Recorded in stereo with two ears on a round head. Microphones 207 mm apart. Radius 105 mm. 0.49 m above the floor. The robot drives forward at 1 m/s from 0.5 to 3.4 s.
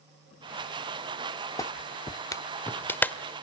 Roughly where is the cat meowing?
No cat meowing in this recording.